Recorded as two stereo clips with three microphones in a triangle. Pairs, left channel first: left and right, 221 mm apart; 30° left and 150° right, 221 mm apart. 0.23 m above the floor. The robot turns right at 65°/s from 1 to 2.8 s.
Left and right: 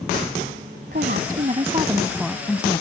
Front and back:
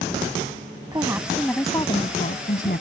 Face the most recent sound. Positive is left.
turn(degrees=35)